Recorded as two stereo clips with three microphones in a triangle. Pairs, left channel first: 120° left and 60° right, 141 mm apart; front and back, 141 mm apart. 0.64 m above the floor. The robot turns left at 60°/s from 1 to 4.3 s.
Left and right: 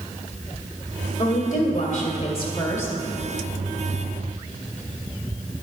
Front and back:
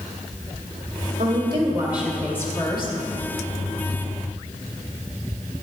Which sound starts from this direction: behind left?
A woman speaking, at 1.2 s.